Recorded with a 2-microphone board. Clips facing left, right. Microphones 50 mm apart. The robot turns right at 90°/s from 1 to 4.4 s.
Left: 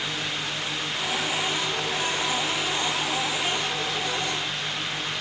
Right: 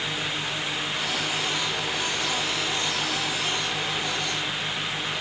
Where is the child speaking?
I don't hear a child speaking.